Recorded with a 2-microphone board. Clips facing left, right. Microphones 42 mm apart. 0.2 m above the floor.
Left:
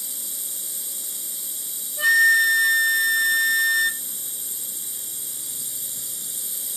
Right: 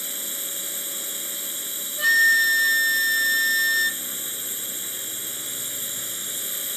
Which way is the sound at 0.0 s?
55° right (ahead or behind).